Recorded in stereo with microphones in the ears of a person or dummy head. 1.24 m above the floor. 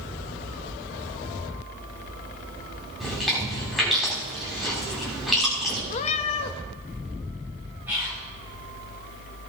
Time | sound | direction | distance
3.0 | chewing | centre (ahead or behind) | 6.5 m
5.9 | a cat meowing | 40° left (ahead or behind) | 0.8 m
7.9 | whispering | 10° right (ahead or behind) | 6 m